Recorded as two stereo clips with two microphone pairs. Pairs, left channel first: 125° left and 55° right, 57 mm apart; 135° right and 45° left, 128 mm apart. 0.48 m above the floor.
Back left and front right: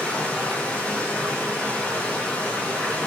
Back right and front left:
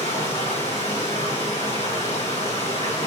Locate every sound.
0.0 s running water: 160° right, 5.5 m